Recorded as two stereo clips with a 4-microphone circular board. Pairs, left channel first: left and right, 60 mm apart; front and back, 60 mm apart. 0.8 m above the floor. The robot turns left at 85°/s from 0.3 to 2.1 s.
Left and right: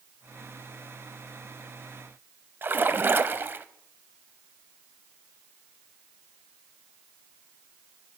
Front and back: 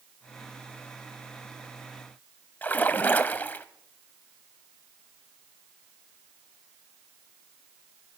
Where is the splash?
50° right, 0.8 m.